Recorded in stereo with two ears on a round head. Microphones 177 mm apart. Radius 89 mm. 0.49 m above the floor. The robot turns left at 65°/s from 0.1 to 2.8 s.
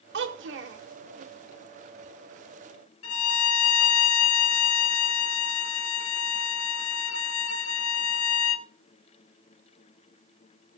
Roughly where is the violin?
Left.